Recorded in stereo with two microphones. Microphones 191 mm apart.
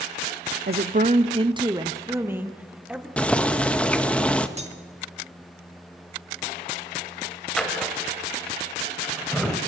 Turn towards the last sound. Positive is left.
turn(degrees=5)  # may be behind; listen again after turning